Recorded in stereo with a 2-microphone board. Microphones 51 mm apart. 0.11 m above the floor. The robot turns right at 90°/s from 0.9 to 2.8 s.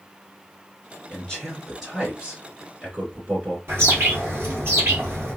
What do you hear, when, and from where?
1.1 s a man speaking: 125° left, 1.9 m; by 3.6 s 80° right, 1.9 m
3.7 s a bird: 55° right (ahead or behind), 1.9 m